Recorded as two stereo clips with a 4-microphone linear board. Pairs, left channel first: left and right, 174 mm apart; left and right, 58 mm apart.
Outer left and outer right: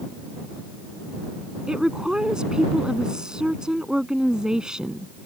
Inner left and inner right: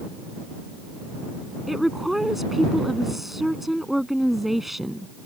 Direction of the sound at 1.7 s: 5° right (ahead or behind).